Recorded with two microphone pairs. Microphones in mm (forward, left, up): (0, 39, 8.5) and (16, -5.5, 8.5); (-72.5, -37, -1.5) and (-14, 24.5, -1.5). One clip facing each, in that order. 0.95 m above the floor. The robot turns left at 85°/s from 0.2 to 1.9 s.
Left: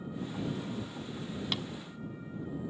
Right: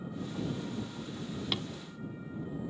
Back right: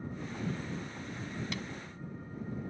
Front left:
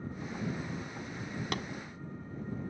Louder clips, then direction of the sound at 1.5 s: Right 1 dB, front left 4 dB; 15° left.